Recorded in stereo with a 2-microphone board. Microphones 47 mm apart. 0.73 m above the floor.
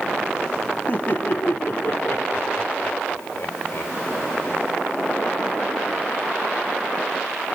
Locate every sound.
0.9 s laughter: 40° left (ahead or behind), 1.6 m; by 4.7 s 60° left (ahead or behind), 3.5 m